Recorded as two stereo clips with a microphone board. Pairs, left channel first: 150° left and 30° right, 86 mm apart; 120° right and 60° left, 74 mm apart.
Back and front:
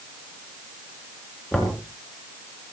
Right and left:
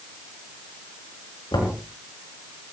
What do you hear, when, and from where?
1.5 s knocking: 125° right, 5.5 m